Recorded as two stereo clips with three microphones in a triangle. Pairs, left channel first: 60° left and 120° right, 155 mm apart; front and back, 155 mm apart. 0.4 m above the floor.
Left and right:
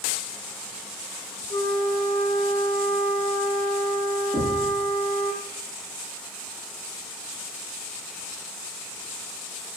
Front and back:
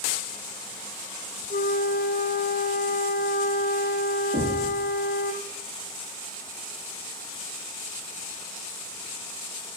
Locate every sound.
1.5 s a flute: 10° left, 2.5 m
4.3 s knocking: 175° left, 8 m